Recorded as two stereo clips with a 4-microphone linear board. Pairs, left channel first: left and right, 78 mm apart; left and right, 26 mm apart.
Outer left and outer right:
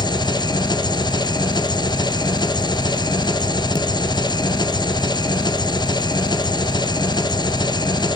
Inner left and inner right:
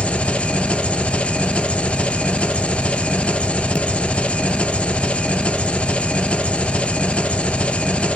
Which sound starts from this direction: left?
An engine running, at 0.0 s.